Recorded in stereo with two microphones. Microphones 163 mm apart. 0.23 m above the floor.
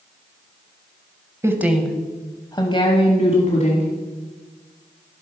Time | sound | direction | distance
1.4 | a woman speaking | 15° right (ahead or behind) | 0.9 m